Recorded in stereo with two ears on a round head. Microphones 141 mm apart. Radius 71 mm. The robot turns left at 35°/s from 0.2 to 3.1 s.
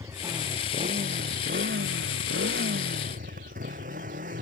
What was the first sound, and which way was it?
A motorcycle, 20° right.